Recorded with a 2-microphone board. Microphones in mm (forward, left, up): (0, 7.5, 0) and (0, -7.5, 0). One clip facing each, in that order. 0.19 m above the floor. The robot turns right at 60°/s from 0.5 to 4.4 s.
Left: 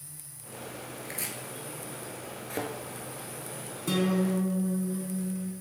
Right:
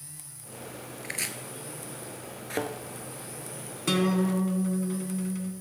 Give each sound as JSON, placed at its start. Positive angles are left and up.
{"t": 1.0, "sound": "chopping", "side_deg": -50, "distance_m": 0.6}
{"t": 2.5, "sound": "a thud", "side_deg": -25, "distance_m": 0.8}
{"t": 3.9, "sound": "a guitar", "azimuth_deg": -115, "distance_m": 1.1}